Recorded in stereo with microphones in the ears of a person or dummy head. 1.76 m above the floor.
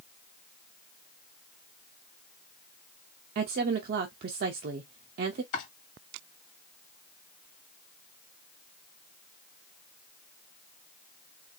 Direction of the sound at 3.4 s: 50° right (ahead or behind).